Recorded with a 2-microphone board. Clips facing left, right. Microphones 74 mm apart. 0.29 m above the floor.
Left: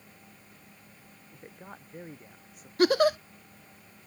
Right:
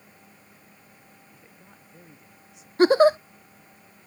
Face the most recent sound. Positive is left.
turn(degrees=-30)  # may be behind; listen again after turning